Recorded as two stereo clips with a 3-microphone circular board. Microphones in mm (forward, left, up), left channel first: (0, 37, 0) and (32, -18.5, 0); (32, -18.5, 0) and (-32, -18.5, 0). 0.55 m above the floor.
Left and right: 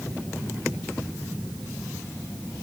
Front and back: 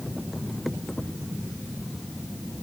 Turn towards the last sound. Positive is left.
No sound to turn to.